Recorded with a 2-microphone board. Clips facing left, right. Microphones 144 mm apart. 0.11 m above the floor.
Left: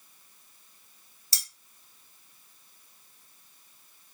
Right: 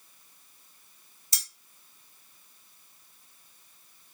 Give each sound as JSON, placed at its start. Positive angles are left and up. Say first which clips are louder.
{"t": 1.3, "sound": "cutlery clinking", "louder": "even", "side_deg": 30, "distance_m": 1.7}